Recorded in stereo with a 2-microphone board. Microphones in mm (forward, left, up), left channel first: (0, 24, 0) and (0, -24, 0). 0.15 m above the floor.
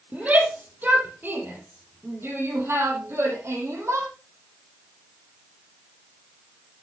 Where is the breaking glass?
No breaking glass in this recording.